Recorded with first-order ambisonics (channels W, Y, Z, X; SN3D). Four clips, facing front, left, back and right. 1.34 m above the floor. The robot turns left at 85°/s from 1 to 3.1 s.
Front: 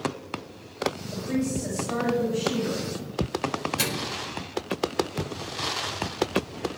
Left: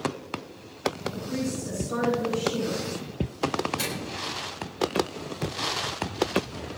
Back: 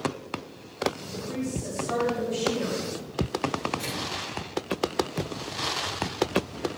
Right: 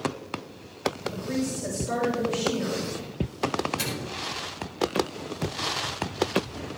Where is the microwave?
5° right, 4.5 m.